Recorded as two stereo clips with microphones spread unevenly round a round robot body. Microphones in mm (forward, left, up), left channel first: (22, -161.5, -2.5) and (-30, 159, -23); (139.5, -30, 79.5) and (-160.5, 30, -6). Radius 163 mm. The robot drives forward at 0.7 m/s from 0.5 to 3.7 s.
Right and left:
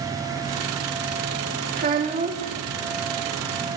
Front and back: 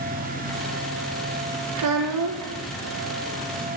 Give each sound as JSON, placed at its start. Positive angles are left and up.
{"t": 1.8, "sound": "a child speaking", "azimuth_deg": 160, "distance_m": 0.8}